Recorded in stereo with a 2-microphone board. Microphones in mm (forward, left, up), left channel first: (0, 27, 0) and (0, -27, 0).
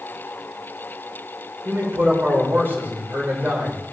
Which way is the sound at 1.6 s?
45° right (ahead or behind).